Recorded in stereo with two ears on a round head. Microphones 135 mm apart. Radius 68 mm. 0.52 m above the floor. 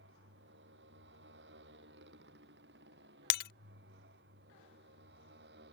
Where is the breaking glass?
75° left (ahead or behind).